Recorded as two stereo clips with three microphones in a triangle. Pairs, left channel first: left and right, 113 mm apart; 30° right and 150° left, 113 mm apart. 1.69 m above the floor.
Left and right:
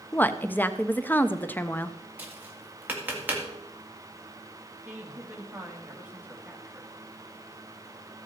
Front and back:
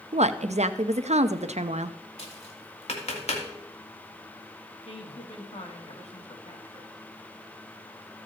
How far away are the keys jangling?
No keys jangling in this recording.